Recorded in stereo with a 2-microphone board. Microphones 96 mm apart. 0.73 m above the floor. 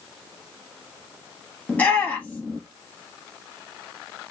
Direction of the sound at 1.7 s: 15° left (ahead or behind).